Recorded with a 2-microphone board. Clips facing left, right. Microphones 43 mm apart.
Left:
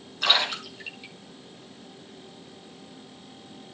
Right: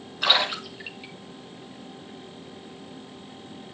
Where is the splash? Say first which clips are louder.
Right 1 dB; 10° right (ahead or behind), 5.5 m.